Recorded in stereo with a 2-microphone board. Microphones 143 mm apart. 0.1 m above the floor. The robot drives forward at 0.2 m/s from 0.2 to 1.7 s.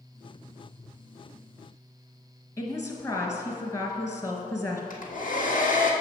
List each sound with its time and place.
2.6 s a woman speaking: 20° left (ahead or behind), 1.4 m
4.9 s a hair dryer: 70° left (ahead or behind), 1.6 m